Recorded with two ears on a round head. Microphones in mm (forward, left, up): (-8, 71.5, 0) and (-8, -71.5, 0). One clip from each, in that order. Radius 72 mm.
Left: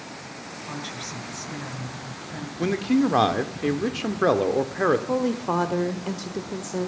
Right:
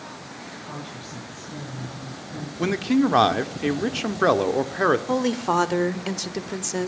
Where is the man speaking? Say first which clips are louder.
Right 1 dB; 25° right (ahead or behind), 1.4 m.